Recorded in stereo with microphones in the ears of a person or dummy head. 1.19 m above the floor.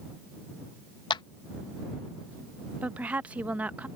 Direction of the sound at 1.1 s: 25° left (ahead or behind).